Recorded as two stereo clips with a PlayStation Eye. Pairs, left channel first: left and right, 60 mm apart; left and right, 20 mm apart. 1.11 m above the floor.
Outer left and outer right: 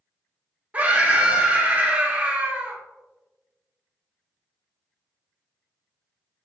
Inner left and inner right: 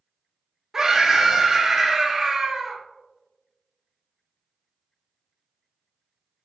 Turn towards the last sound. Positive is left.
turn(degrees=-25)  # may be behind; listen again after turning